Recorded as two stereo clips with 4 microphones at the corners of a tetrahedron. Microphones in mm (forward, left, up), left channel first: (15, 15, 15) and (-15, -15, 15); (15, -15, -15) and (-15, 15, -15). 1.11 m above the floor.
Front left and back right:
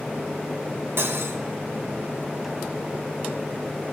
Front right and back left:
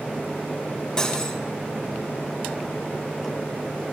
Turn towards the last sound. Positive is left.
turn(degrees=-115)